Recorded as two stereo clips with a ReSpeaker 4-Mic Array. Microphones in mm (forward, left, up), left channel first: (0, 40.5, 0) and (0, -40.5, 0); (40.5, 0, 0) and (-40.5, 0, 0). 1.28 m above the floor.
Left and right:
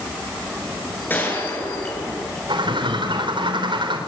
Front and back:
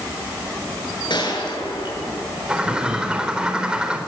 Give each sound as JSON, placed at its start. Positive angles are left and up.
{"t": 1.1, "sound": "a gunshot", "azimuth_deg": 25, "distance_m": 9.0}
{"t": 2.5, "sound": "a bird", "azimuth_deg": -100, "distance_m": 4.5}